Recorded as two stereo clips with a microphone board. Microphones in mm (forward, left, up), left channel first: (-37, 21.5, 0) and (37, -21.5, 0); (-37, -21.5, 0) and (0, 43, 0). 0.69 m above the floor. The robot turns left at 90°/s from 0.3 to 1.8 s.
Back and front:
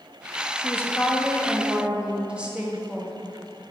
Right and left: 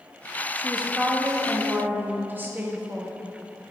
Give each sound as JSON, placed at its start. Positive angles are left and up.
{"t": 0.6, "sound": "a woman speaking", "azimuth_deg": 145, "distance_m": 0.9}